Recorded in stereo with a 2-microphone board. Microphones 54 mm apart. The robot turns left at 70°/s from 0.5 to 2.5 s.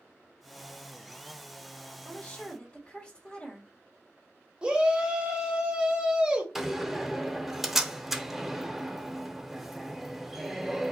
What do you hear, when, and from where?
2.0 s a woman speaking: 60° left, 1.7 m; by 3.7 s 30° left, 1.7 m
4.6 s a shout: 20° right (ahead or behind), 0.9 m
6.5 s a door slam: 5° right (ahead or behind), 0.5 m